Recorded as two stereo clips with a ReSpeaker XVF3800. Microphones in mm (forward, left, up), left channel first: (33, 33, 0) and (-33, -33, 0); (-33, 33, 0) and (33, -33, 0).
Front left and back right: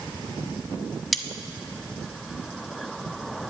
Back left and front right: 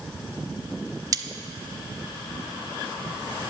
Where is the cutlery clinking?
45° right, 0.7 m.